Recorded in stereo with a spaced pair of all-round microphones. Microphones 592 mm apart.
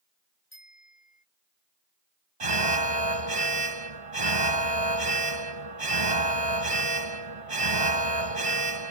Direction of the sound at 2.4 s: 65° right (ahead or behind).